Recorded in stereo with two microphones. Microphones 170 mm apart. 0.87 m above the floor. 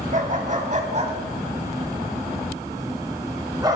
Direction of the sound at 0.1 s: 55° right (ahead or behind).